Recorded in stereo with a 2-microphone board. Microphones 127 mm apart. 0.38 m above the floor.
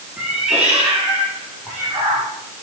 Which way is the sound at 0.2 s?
5° right (ahead or behind).